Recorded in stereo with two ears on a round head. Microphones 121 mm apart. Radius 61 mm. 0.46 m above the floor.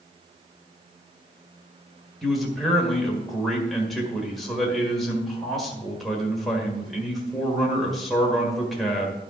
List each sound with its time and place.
2.2 s a man speaking: centre (ahead or behind), 1.7 m